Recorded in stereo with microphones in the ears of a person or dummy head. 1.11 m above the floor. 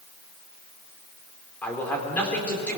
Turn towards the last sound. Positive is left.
turn(degrees=5)  # may be behind; listen again after turning